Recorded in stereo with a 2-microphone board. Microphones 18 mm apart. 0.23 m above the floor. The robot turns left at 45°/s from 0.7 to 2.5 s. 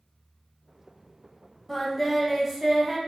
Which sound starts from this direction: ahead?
Singing, at 1.7 s.